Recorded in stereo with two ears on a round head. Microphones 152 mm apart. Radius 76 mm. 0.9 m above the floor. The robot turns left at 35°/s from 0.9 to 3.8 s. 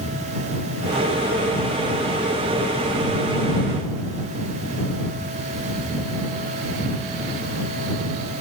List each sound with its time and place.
Only background noise.